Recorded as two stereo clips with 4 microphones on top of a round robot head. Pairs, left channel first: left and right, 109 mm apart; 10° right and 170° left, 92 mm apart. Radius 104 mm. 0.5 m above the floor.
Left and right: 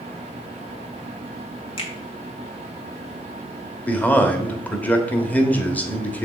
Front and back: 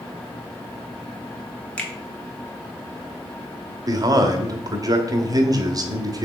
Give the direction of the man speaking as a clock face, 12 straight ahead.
7 o'clock.